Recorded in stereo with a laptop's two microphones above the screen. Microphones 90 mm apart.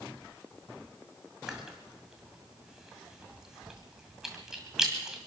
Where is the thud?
No thud in this recording.